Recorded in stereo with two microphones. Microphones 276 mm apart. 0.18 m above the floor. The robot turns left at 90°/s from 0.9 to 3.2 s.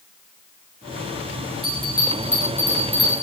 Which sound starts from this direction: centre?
A bell, at 1.6 s.